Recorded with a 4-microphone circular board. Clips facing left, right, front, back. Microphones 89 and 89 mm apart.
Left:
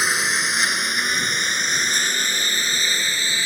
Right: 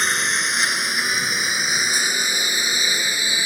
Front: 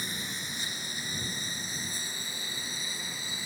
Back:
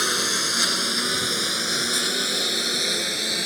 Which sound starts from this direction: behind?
A lawn mower, at 0.0 s.